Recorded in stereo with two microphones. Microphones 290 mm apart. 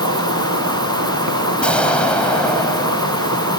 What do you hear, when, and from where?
0.0 s an insect: 70° right (ahead or behind)
1.6 s an explosion: 5° left (ahead or behind)